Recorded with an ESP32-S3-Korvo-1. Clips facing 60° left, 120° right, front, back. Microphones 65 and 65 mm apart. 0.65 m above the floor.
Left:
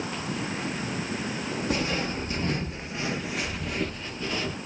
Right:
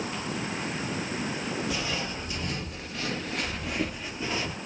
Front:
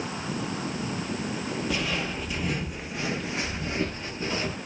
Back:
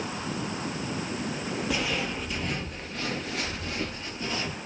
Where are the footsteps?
90° left, 1.0 m; by 4.6 s 60° right, 0.9 m.